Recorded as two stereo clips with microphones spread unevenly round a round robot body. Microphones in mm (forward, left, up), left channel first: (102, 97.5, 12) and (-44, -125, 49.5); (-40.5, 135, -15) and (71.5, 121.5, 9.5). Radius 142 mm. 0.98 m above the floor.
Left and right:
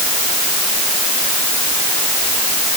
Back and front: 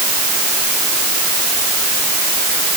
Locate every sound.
Only background noise.